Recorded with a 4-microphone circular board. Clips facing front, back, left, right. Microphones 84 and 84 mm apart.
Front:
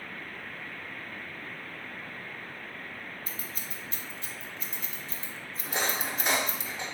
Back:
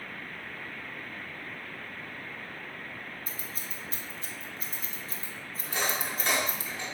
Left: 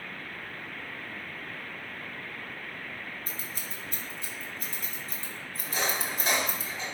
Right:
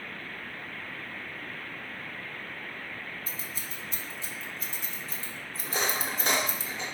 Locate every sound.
3.3 s scissors: 125° left, 0.6 m
5.6 s cutlery clinking: 70° right, 0.9 m